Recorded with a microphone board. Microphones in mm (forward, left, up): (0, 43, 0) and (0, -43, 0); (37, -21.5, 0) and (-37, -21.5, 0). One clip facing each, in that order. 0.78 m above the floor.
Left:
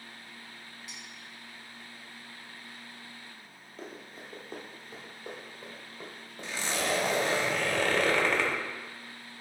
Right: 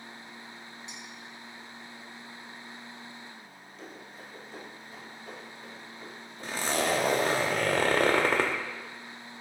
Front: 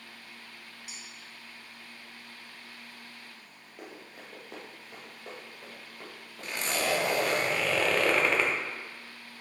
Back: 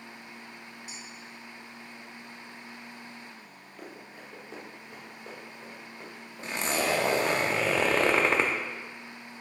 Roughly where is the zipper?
Behind right.